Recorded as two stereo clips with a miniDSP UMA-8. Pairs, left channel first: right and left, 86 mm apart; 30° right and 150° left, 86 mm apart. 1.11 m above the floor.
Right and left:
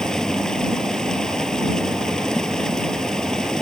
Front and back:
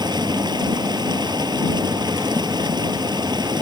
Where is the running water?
175° right.